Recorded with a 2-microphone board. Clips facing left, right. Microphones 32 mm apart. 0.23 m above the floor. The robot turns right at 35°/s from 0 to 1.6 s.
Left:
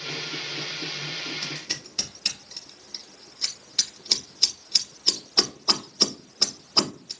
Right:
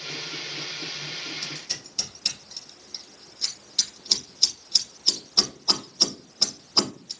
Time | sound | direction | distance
1.4 | scissors | 20° left (ahead or behind) | 1.2 m